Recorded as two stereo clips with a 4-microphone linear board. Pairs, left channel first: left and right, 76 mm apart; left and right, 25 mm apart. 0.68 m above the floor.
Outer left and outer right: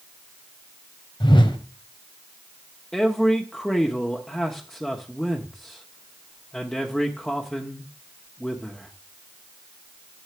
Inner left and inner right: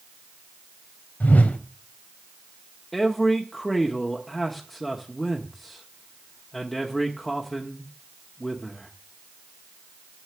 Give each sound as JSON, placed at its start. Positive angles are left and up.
{"t": 1.2, "sound": "a whoosh", "side_deg": 80, "distance_m": 1.4}
{"t": 2.9, "sound": "a man speaking", "side_deg": 10, "distance_m": 1.1}